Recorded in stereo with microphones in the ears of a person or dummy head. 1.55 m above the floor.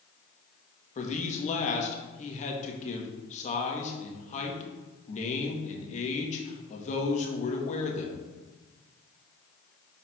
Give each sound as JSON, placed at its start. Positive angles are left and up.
{"t": 0.9, "sound": "a man speaking", "side_deg": 40, "distance_m": 1.9}